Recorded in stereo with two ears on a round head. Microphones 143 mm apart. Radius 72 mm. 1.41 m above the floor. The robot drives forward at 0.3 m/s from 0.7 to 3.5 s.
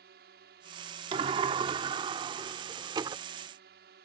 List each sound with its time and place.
0.0 s a drone: 65° right (ahead or behind)
1.1 s a sliding door: 35° right (ahead or behind); by 3.2 s 30° right (ahead or behind)